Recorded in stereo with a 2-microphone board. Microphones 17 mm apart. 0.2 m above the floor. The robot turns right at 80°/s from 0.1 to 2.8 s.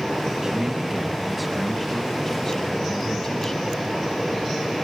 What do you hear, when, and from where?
0.4 s a man speaking: 25° right (ahead or behind), 1.7 m; by 3.7 s 25° left (ahead or behind), 1.7 m